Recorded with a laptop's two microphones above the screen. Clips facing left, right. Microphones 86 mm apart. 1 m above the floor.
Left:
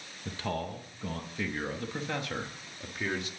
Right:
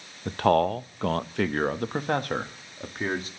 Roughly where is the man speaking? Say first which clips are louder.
Right 14 dB; right.